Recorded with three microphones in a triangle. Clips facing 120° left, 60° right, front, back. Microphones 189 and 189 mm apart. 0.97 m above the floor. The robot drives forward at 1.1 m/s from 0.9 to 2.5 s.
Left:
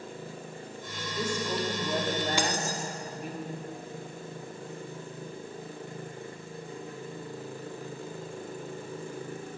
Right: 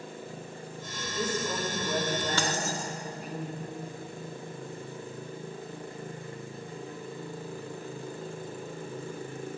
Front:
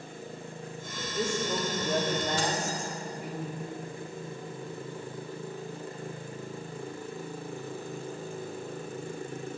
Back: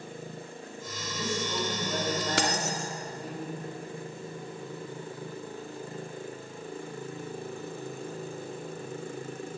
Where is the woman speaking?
35° left, 2.5 m; by 3.4 s 75° left, 1.7 m.